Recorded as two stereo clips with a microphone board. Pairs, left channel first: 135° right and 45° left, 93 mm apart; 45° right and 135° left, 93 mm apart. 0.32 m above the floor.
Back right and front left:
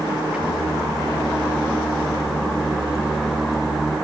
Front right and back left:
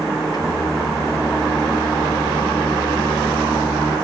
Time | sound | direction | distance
0.3 | singing | 30° right | 2.5 m